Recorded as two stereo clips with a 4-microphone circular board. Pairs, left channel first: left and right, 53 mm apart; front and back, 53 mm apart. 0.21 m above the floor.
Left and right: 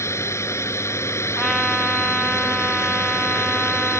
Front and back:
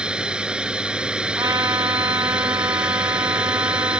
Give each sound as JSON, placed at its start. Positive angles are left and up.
{"t": 0.0, "sound": "a drone", "azimuth_deg": 110}
{"t": 1.4, "sound": "a trumpet", "azimuth_deg": 175}